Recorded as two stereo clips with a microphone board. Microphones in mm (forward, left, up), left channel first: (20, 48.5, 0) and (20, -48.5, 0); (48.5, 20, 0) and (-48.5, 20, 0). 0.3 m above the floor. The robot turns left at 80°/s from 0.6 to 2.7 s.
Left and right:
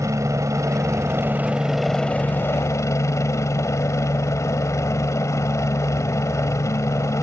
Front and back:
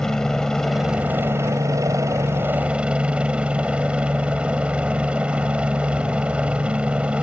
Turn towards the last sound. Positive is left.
turn(degrees=110)